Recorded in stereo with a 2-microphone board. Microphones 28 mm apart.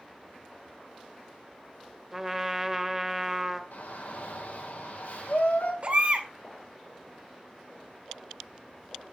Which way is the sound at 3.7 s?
70° left (ahead or behind).